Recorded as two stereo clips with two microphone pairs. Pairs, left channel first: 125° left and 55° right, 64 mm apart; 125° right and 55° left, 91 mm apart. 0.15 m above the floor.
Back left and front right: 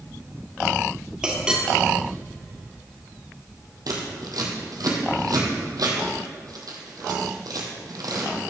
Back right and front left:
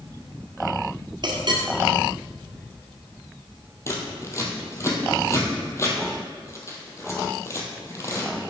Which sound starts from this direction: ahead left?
A clink, at 1.2 s.